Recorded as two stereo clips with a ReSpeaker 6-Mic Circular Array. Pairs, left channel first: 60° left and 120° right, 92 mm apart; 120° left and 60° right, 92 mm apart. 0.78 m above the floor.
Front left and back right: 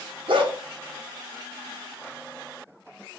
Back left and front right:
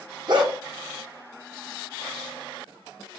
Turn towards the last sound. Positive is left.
turn(degrees=-100)